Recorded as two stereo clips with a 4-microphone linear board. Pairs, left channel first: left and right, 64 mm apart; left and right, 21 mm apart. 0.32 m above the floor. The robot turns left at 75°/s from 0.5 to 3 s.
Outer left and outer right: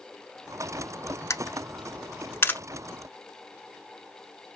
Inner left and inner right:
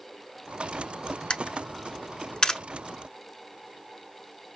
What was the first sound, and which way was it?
A camera shutter, 55° left (ahead or behind).